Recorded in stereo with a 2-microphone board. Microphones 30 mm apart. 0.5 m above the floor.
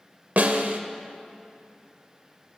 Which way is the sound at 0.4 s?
65° right (ahead or behind).